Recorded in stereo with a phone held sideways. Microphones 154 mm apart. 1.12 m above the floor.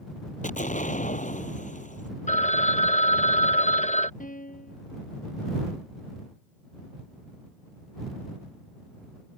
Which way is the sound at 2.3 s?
50° left (ahead or behind).